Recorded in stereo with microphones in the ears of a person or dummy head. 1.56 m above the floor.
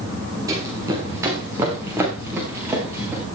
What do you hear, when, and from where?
0.5 s running footsteps: 20° right (ahead or behind), 4 m; by 3.2 s 10° right (ahead or behind), 5.5 m